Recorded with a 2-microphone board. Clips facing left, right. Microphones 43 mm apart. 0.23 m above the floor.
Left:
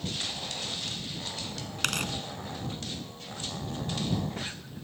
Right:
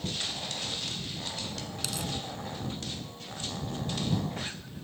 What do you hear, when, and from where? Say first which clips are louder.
1.8 s tearing paper: left 7 dB; 60° left (ahead or behind)